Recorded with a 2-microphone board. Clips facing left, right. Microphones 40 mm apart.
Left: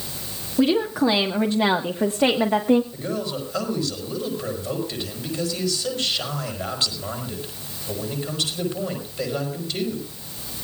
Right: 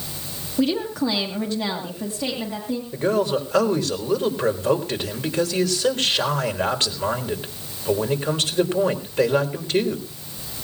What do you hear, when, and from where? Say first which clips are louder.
0.6 s a woman speaking: left 3 dB; 10° left (ahead or behind), 1.6 m; by 2.8 s 55° left (ahead or behind), 1.6 m
2.9 s a man speaking: right 7 dB; 65° right (ahead or behind), 4 m